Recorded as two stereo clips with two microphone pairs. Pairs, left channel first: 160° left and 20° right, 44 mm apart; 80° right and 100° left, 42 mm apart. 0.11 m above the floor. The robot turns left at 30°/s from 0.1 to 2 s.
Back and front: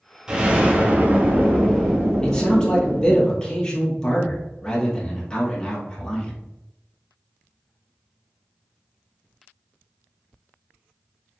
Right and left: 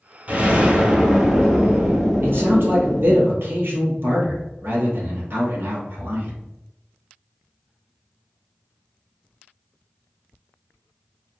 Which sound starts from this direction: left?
A man speaking, at 2.2 s.